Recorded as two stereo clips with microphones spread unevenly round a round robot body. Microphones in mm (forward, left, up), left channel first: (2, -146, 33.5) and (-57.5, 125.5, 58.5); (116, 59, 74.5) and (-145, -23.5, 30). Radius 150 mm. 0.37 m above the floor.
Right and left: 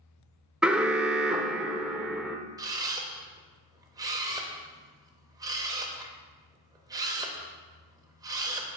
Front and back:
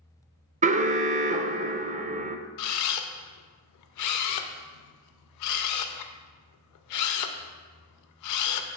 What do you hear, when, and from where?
0.6 s an alarm: 165° right, 0.5 m
2.6 s a camera shutter: 25° left, 0.6 m